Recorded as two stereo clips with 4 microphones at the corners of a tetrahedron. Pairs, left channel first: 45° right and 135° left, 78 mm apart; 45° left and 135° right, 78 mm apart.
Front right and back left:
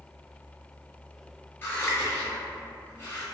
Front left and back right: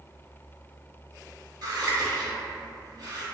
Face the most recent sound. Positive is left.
turn(degrees=-110)